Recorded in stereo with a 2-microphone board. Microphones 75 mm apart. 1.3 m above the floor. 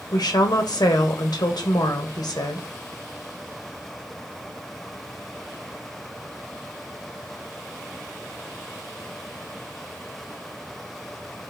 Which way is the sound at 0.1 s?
65° left (ahead or behind).